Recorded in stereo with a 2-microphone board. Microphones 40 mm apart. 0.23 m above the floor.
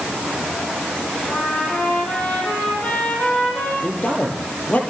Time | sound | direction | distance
1.3 | a trumpet | 40° left (ahead or behind) | 10 m
3.8 | a man speaking | 45° left (ahead or behind) | 6.5 m